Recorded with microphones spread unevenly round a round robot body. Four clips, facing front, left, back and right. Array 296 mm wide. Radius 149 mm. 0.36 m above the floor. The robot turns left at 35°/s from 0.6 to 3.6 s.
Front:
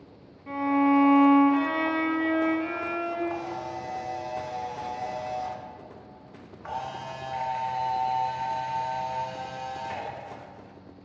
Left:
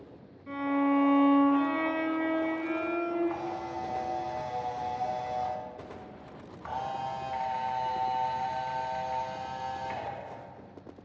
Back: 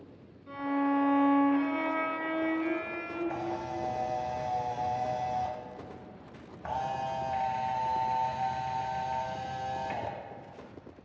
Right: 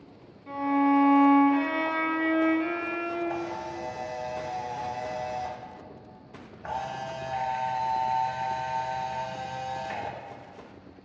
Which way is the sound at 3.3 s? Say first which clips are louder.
Right 1 dB, front 2 dB; 155° right.